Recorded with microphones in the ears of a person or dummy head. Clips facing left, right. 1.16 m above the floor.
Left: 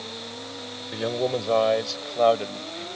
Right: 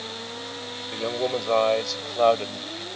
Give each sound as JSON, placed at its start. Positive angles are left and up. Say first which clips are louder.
{"t": 0.9, "sound": "a man speaking", "louder": "left 1 dB", "side_deg": 10}